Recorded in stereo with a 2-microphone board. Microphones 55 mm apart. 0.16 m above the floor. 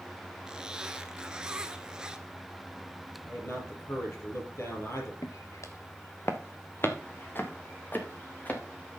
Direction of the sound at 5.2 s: 75° left (ahead or behind).